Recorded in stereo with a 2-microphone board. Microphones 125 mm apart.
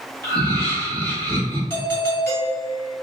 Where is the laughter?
35° right (ahead or behind), 1.6 m; by 1.6 s 40° right (ahead or behind), 2.5 m.